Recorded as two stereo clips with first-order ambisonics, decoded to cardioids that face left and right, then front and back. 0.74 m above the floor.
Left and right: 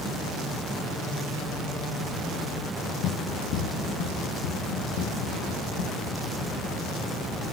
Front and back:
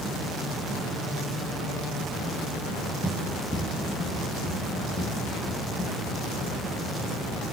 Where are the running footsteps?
90° left, 1.2 m; by 6.6 s 65° left, 3 m.